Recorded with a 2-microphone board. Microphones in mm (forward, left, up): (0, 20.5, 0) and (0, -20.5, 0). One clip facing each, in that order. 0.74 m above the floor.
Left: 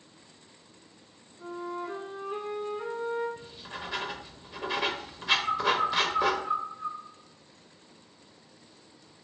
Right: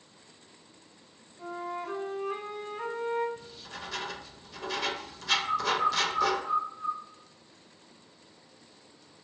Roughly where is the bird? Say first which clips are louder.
Left 1 dB; centre.